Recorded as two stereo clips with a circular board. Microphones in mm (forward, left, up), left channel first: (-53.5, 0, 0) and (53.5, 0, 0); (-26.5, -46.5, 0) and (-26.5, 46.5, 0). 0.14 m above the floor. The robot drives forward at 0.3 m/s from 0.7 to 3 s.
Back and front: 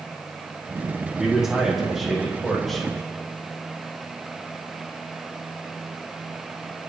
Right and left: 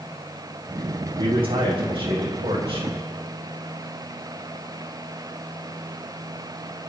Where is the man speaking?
85° left, 5 m; by 2.9 s 90° left, 5 m.